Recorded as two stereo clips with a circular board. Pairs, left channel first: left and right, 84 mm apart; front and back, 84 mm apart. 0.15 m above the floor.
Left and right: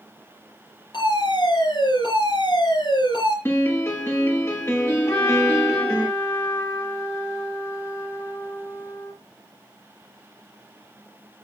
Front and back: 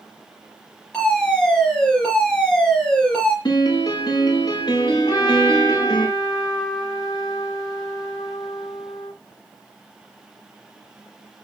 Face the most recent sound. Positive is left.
turn(degrees=35)